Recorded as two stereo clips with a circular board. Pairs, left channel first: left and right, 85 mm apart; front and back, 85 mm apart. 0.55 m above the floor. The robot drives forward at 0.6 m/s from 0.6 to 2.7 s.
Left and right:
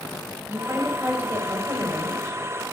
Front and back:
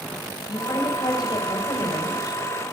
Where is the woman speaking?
30° right, 3.5 m; by 2.4 s 40° right, 2.5 m.